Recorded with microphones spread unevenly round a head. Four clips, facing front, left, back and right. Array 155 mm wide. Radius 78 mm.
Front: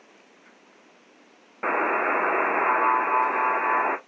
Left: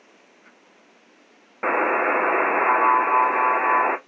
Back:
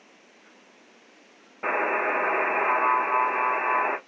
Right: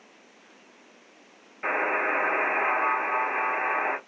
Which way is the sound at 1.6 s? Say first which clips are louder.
Left 6 dB, front 2 dB; 75° left.